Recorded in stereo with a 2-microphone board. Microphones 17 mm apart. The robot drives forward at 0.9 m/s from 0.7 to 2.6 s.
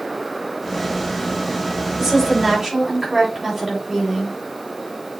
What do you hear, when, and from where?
2.0 s a woman speaking: 20° right (ahead or behind), 5.5 m